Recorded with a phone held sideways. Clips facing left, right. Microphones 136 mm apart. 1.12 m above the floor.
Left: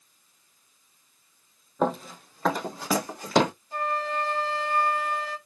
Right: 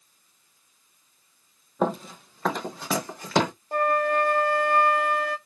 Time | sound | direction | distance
1.8 | running footsteps | centre (ahead or behind) | 1.5 m
3.7 | a flute | 55° right (ahead or behind) | 0.6 m